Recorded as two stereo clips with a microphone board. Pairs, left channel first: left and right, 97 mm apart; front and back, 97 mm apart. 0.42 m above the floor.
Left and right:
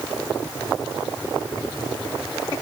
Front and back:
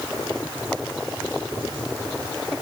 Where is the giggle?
No giggle in this recording.